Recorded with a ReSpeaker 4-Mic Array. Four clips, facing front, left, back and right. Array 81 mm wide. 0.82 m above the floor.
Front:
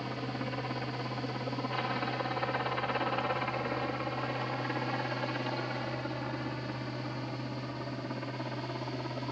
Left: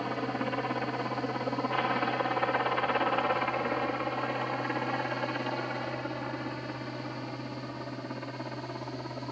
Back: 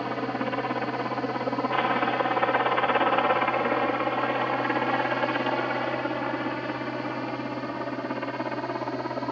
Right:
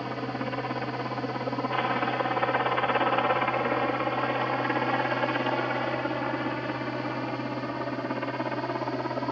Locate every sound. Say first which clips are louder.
0.0 s a helicopter: even, back 8 dB; straight behind; by 9.3 s 130° right